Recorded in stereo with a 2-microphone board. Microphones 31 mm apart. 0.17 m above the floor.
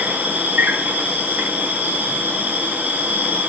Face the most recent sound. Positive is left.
turn(degrees=-75)  # may be behind; listen again after turning